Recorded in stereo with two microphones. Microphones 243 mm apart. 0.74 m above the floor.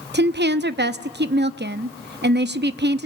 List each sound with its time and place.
0.1 s a woman speaking: 45° right (ahead or behind), 0.7 m